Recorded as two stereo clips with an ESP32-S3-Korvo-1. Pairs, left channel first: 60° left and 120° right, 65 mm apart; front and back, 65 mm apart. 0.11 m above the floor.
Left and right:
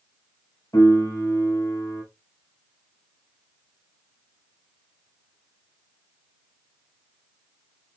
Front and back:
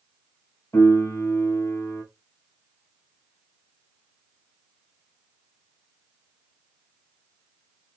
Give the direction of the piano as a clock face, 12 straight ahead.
11 o'clock.